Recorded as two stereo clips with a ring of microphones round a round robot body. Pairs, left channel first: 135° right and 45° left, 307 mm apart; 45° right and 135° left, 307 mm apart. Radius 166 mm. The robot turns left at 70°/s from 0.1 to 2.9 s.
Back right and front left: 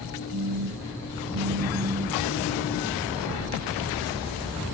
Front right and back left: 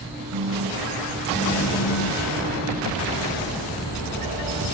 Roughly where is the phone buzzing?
Left.